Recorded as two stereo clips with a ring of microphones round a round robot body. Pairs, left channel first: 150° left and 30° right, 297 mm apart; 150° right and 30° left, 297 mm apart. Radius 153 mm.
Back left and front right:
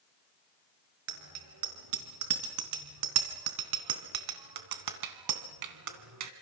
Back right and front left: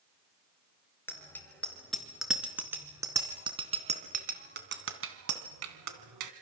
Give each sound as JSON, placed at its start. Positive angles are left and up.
{"t": 1.1, "sound": "a bicycle bell", "azimuth_deg": -65, "distance_m": 4.5}